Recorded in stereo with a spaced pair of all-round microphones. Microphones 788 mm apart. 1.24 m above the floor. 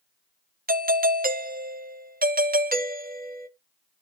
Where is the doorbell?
15° right (ahead or behind), 0.5 m.